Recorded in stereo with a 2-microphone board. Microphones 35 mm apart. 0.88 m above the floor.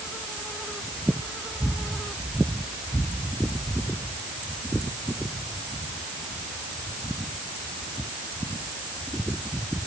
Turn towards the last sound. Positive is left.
No sound to turn to.